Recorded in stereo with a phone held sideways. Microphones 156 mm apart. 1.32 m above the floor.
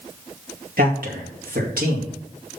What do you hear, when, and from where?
0.8 s a man speaking: 70° right (ahead or behind), 2.5 m